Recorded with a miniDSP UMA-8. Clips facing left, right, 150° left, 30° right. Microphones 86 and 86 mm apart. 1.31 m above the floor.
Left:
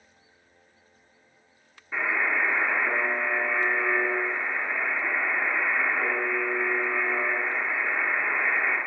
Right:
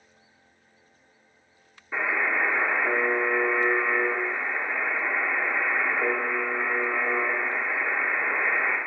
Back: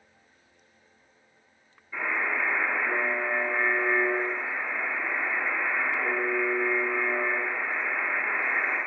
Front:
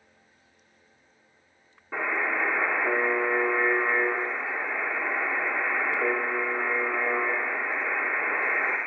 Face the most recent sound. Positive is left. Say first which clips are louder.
# right 1 dB, front 2 dB
turn(degrees=-10)